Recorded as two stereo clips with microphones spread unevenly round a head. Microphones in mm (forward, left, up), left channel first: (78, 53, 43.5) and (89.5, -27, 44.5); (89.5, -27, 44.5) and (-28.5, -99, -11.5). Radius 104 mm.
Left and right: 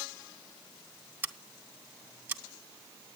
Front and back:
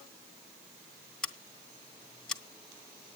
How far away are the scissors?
About 1.4 m.